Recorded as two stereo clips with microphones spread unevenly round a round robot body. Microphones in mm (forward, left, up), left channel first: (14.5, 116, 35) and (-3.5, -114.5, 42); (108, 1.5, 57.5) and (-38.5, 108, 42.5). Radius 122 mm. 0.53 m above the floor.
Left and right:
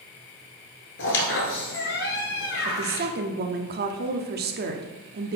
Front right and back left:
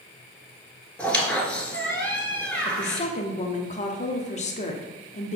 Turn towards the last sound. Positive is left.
turn(degrees=-75)